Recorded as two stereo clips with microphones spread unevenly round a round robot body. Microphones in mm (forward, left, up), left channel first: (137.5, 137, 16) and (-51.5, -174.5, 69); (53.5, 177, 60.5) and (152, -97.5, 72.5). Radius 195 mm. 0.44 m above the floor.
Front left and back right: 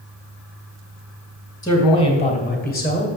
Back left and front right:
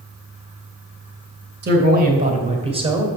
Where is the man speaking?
15° right, 2.5 m; by 3.1 s 5° left, 2 m.